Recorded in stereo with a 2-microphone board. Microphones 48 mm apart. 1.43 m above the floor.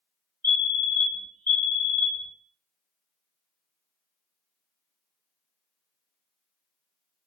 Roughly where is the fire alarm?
Left.